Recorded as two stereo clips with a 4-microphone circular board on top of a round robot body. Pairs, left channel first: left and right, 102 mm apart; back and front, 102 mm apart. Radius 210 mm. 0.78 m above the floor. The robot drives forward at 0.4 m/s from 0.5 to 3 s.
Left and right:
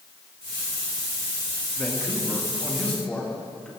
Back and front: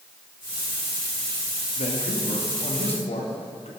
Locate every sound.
1.8 s a man speaking: 165° left, 1.5 m; by 3.7 s 170° left, 2 m